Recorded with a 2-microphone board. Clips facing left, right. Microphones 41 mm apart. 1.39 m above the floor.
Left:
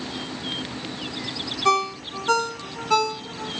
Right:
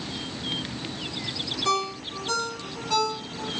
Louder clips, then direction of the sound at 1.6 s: Left 6 dB; 40° left (ahead or behind).